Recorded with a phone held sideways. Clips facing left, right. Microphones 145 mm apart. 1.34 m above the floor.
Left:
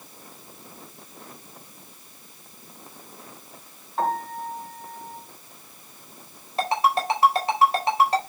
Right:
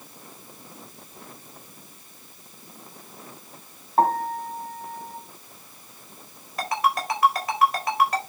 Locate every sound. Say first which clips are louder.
4.0 s a piano: right 5 dB; 55° right (ahead or behind), 3 m
6.6 s a ringtone: left 2 dB; 30° left (ahead or behind), 3.5 m